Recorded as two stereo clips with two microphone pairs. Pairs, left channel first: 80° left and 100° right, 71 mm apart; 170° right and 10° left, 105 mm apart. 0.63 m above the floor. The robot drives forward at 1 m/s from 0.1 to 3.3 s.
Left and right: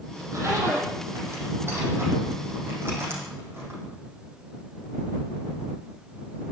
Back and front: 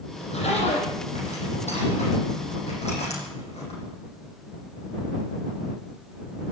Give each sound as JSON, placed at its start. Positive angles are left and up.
{"t": 0.2, "sound": "a zipper", "azimuth_deg": -145, "distance_m": 7.5}